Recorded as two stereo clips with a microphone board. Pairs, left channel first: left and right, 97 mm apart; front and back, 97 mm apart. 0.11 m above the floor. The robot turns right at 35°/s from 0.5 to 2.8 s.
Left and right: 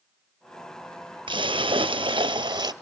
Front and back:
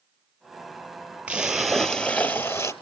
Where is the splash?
105° right, 0.7 m; by 2.7 s 50° right, 0.7 m.